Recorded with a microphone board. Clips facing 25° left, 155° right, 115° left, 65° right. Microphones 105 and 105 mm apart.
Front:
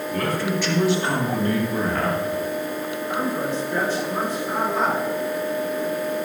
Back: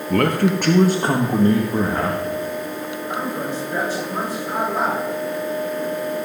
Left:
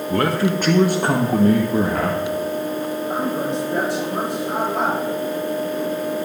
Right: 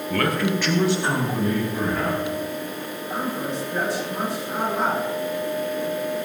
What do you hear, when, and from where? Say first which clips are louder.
0.1 s a man speaking: back 8 dB, left 3 dB; straight behind, 1.0 m; by 2.2 s 130° left, 1.6 m
3.1 s a man speaking: front 1 dB, left 3 dB; 125° left, 5.5 m